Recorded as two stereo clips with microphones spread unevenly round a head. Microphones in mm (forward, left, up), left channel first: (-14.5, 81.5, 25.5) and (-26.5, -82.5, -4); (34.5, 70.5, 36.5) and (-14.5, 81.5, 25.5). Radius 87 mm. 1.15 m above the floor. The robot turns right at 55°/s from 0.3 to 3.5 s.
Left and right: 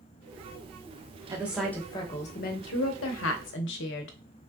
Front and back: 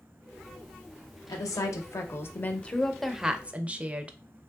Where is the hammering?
No hammering in this recording.